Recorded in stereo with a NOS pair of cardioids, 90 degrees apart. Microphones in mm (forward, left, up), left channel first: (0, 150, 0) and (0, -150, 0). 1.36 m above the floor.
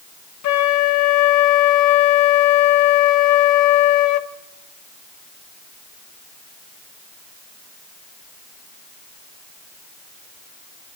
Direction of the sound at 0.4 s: 70° left.